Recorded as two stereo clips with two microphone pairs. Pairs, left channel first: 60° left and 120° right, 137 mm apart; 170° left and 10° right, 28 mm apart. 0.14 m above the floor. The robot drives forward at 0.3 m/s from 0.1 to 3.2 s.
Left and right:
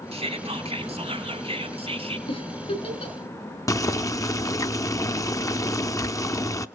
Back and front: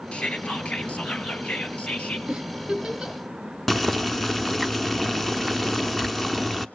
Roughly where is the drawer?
No drawer in this recording.